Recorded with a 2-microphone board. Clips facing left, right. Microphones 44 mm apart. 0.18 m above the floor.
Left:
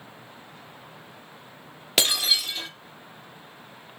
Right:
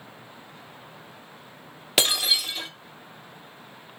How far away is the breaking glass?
About 2.5 m.